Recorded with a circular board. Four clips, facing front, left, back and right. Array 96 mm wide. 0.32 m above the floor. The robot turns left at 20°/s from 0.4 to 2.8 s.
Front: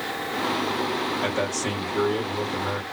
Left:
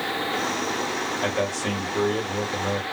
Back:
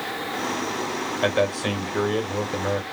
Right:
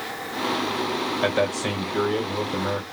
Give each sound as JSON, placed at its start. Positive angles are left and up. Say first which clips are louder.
{"t": 1.2, "sound": "a man speaking", "louder": "right 3 dB, back 4 dB", "azimuth_deg": -155, "distance_m": 1.6}